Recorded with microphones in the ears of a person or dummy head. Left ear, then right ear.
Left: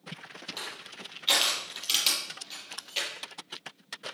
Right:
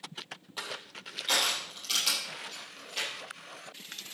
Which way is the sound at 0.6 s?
30° left (ahead or behind).